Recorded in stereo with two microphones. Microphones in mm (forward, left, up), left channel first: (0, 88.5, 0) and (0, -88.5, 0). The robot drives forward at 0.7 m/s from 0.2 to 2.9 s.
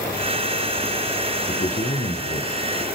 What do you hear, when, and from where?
1.5 s a man speaking: 50° left (ahead or behind), 1.9 m; by 2.5 s 40° left (ahead or behind), 2 m